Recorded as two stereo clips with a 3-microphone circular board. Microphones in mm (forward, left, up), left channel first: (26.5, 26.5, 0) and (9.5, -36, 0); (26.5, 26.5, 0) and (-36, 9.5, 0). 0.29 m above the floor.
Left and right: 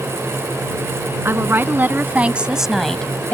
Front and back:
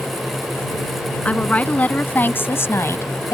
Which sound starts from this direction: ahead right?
A woman speaking, at 1.2 s.